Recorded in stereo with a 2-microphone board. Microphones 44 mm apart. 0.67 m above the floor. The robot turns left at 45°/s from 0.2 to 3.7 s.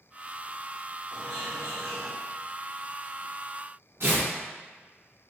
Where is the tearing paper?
65° right (ahead or behind), 1.8 m.